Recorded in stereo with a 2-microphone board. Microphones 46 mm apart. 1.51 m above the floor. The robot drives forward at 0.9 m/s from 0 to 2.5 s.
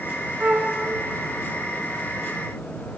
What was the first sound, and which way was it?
A flute, 40° right (ahead or behind).